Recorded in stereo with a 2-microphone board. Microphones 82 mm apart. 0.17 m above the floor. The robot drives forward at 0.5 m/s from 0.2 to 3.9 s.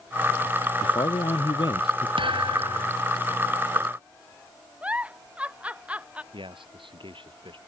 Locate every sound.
0.8 s a man speaking: 70° left (ahead or behind); by 2.1 s 65° left (ahead or behind)
2.2 s a thud: 85° right; by 3.0 s 90° right
4.8 s a giggle: 15° right (ahead or behind)
6.3 s a man speaking: 85° right